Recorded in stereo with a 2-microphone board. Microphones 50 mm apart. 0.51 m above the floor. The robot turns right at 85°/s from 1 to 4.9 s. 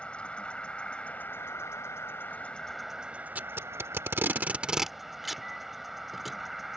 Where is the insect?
25° left; by 6.8 s 5° right.